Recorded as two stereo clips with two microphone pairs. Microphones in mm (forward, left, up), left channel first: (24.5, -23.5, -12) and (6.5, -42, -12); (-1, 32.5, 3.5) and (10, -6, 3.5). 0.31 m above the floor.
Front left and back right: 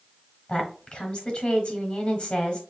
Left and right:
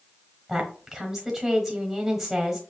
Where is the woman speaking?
10° left, 1.3 m.